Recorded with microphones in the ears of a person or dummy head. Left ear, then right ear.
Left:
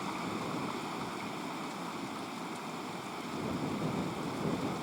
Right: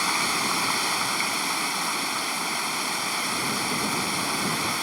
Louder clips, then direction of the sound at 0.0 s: Right 14 dB; 60° right (ahead or behind).